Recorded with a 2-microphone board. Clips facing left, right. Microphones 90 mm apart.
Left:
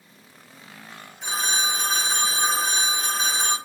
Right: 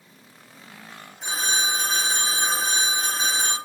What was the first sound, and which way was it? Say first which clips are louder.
A phone ringing: even; 5° right (ahead or behind).